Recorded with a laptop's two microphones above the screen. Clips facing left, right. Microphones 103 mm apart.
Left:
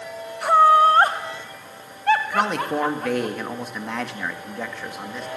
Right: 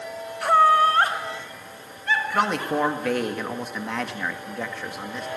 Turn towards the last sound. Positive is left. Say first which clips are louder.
# left 1 dB
turn(degrees=0)  # may be behind; listen again after turning